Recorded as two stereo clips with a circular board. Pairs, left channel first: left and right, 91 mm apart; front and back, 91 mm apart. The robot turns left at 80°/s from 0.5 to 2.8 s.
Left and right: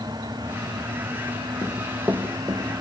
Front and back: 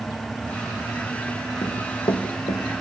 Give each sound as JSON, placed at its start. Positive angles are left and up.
{"t": 1.6, "sound": "running footsteps", "azimuth_deg": 20, "distance_m": 3.5}